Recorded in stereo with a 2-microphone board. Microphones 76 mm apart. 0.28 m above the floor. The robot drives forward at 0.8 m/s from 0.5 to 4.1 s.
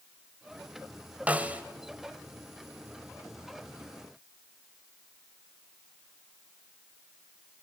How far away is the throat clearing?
I don't hear throat clearing.